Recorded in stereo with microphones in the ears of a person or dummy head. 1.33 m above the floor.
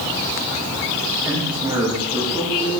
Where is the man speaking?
30° right (ahead or behind), 7 m; by 2.7 s 35° right (ahead or behind), 8 m.